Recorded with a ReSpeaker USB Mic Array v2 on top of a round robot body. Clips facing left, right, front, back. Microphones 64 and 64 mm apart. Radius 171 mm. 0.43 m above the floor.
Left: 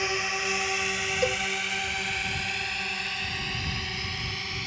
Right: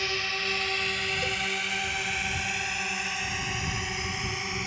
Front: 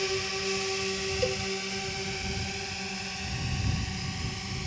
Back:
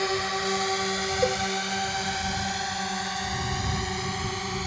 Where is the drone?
160° left; by 4.7 s 165° right.